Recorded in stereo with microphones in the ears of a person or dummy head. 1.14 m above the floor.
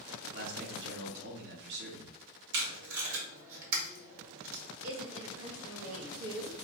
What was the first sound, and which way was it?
A man speaking, 55° right (ahead or behind).